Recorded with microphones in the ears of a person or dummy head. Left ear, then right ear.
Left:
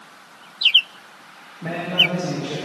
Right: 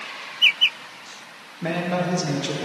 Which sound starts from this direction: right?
A man speaking, at 1.6 s.